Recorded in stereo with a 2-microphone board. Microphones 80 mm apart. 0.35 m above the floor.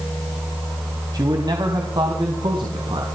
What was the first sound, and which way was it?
A man speaking, 55° right (ahead or behind).